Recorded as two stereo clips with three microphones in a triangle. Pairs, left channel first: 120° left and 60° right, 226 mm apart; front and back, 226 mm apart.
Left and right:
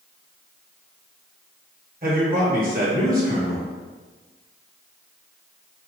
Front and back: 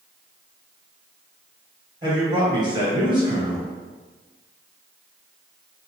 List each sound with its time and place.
2.0 s a man speaking: 110° right, 1.5 m